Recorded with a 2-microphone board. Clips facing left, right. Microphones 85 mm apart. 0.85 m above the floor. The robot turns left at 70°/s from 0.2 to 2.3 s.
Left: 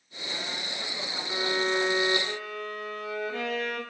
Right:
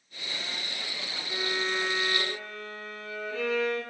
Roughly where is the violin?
Behind left.